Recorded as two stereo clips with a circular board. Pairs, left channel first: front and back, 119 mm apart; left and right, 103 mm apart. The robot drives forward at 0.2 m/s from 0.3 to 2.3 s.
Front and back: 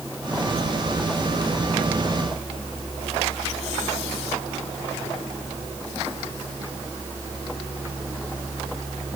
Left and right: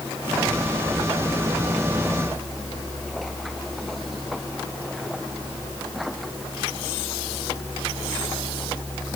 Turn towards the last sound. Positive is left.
No sound to turn to.